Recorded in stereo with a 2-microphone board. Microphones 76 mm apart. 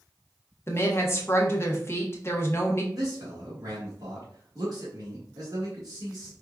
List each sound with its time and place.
0.7 s a woman speaking: 35° left (ahead or behind), 0.8 m
2.9 s a man speaking: 55° right (ahead or behind), 1.7 m